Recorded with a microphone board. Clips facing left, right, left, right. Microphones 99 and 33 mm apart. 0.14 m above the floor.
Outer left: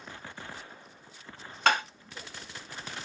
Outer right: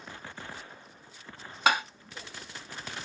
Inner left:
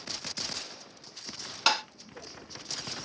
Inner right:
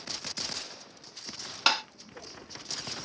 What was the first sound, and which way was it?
Tapping, 5° right (ahead or behind).